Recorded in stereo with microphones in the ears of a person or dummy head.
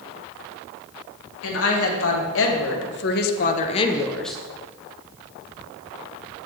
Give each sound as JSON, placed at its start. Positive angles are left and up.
{"t": 1.4, "sound": "a woman speaking", "side_deg": 75, "distance_m": 2.5}